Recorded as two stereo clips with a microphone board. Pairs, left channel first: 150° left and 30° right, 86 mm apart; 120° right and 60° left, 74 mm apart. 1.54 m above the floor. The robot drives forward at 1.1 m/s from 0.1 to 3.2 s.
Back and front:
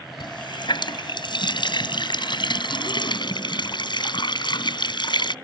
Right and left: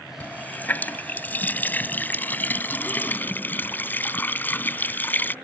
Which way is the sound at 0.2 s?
170° left.